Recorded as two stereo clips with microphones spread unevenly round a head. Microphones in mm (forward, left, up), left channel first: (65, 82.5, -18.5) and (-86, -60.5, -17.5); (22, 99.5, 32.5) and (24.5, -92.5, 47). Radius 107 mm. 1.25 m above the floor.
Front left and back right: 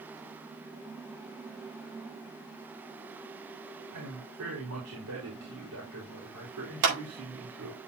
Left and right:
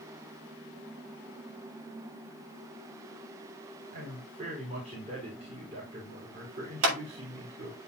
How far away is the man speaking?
About 4 m.